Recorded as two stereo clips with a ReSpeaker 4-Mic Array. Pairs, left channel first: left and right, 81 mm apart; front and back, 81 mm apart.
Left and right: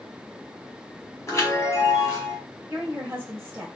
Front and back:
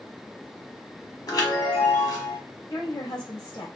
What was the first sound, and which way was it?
A chime, 35° left.